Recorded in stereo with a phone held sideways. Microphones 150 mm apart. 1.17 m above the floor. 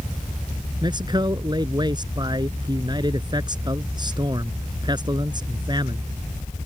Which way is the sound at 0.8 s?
30° right (ahead or behind).